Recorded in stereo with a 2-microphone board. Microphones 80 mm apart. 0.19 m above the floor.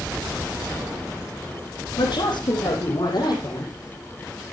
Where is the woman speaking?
70° left (ahead or behind), 7.5 m; by 3.7 s 60° left (ahead or behind), 8 m.